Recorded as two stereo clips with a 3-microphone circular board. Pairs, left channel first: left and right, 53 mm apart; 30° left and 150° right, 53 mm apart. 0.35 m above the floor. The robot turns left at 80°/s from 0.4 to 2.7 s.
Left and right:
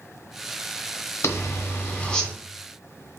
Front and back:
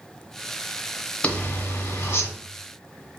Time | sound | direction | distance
1.2 | a zipper | 95° left | 1.0 m